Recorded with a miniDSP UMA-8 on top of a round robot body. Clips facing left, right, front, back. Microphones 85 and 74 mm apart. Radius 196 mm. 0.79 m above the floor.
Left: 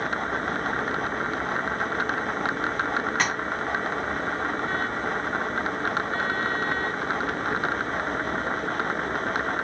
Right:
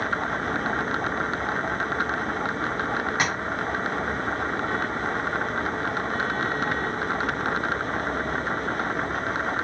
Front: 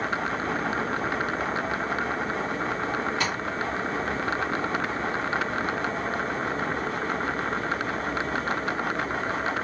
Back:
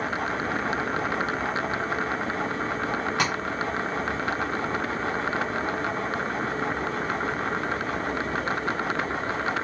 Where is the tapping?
165° right, 1.2 m.